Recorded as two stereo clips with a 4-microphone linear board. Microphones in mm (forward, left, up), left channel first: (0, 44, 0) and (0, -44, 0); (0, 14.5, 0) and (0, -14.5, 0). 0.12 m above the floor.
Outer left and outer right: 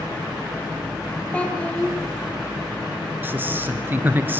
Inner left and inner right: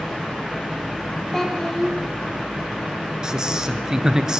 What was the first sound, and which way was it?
A child speaking, 15° left (ahead or behind).